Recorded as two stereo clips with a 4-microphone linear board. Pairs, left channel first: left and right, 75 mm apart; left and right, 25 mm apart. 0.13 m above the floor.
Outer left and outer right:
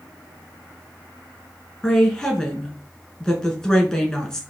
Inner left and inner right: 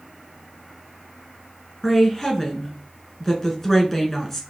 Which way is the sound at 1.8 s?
10° left (ahead or behind).